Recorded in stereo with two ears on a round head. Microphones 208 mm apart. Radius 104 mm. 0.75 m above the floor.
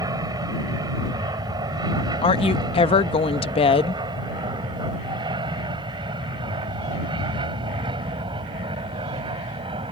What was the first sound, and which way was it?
An aircraft, 15° right (ahead or behind).